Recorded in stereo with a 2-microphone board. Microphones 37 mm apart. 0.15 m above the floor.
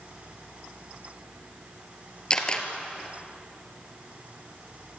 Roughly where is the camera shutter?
Left.